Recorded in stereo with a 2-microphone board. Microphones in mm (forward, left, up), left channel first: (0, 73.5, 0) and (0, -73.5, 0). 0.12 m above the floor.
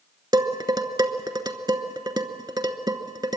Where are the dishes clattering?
25° right (ahead or behind), 0.9 m.